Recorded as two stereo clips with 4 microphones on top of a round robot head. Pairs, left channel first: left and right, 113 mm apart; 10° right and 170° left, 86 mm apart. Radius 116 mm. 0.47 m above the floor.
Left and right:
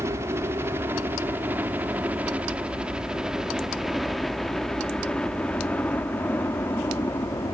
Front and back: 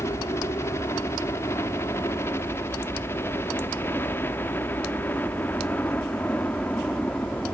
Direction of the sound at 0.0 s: 40° right.